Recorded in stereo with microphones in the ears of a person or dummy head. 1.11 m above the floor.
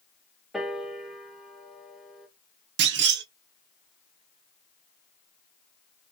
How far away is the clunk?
About 0.6 m.